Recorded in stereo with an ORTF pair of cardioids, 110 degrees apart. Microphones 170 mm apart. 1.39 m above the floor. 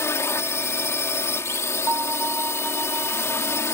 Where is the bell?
15° right.